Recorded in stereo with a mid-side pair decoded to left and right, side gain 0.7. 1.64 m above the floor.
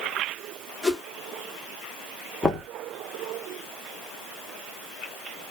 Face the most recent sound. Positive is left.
turn(degrees=10)